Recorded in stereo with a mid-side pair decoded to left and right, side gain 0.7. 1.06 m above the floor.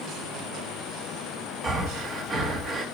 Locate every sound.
1.6 s breathing: 30° right, 1.1 m